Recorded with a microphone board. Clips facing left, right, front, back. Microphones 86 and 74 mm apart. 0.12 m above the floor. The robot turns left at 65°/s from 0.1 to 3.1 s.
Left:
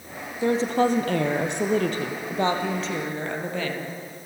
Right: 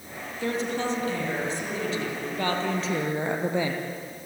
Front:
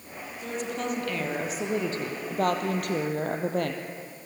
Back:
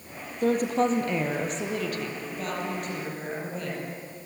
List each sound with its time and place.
0.4 s a woman speaking: 160° left, 3.5 m; by 3.8 s 15° right, 3.5 m